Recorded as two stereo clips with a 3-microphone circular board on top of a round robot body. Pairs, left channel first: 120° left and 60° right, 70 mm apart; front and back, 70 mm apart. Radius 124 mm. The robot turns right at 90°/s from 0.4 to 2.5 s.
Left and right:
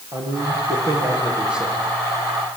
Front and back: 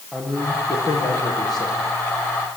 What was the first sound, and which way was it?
A man speaking, 85° right.